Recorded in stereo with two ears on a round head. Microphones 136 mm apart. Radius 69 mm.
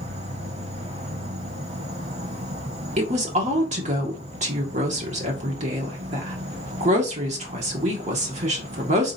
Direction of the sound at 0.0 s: 45° right (ahead or behind).